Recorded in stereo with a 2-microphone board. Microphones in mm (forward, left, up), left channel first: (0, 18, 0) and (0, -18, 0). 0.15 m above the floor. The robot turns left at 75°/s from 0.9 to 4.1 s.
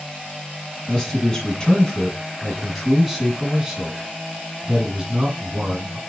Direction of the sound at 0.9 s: 15° left (ahead or behind).